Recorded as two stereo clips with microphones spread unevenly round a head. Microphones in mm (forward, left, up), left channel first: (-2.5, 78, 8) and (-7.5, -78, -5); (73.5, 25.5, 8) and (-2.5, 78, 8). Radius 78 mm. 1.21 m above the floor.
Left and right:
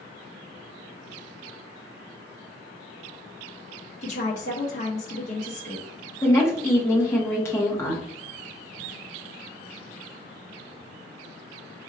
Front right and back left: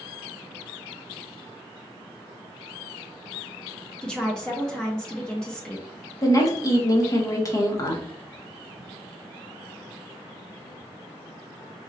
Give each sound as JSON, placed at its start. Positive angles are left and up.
{"t": 4.0, "sound": "a woman speaking", "azimuth_deg": 45, "distance_m": 0.9}
{"t": 6.2, "sound": "a woman speaking", "azimuth_deg": 10, "distance_m": 1.3}